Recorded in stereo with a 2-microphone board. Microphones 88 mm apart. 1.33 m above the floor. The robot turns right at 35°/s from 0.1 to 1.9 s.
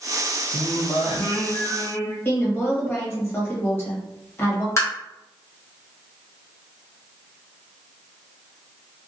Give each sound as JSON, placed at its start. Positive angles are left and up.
{"t": 0.5, "sound": "singing", "azimuth_deg": 60, "distance_m": 0.7}
{"t": 2.2, "sound": "a woman speaking", "side_deg": 30, "distance_m": 1.3}
{"t": 4.8, "sound": "tapping", "side_deg": 35, "distance_m": 0.9}